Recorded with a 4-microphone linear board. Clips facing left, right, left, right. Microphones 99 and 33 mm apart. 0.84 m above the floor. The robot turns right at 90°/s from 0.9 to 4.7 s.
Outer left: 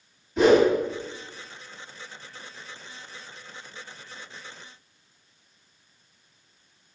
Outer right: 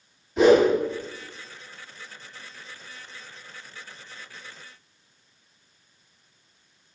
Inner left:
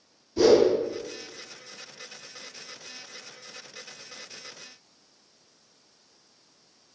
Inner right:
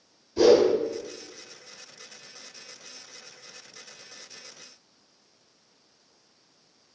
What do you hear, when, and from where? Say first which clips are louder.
0.4 s a whoosh: outer right 1 dB, inner right 1 dB; centre (ahead or behind), 1.7 m